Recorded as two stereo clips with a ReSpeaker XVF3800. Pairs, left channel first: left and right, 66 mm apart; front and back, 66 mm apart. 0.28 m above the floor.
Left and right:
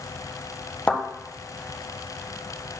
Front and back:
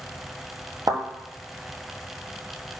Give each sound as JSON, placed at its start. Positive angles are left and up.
{"t": 0.9, "sound": "a thud", "azimuth_deg": 165, "distance_m": 1.4}